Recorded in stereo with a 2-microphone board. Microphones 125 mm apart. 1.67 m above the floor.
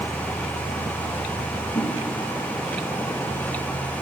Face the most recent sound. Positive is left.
turn(degrees=60)  # may be behind; listen again after turning